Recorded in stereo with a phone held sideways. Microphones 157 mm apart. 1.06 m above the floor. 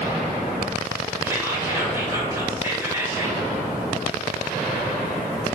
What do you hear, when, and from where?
1.2 s whispering: 15° right (ahead or behind), 0.9 m